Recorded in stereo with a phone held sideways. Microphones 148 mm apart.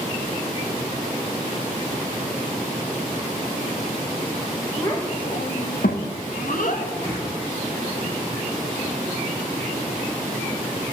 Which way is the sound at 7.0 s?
35° left (ahead or behind).